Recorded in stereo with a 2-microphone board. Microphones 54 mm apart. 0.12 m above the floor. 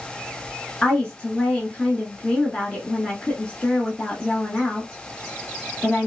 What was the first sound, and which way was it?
A woman speaking, 20° left (ahead or behind).